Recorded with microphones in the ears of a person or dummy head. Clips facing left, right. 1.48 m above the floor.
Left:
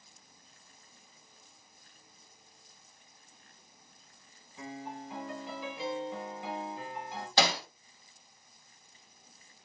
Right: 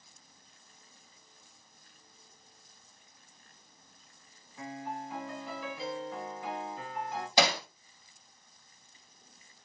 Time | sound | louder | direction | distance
4.6 | a piano | right 2 dB | 15° left (ahead or behind) | 1.6 m
7.4 | hammering | right 1 dB | 15° right (ahead or behind) | 1.3 m